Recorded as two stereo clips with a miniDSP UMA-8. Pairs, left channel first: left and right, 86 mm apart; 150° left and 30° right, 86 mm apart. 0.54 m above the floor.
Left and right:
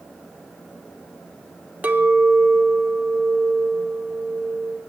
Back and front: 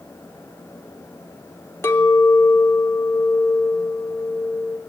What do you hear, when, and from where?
1.8 s a clink: 155° right, 0.9 m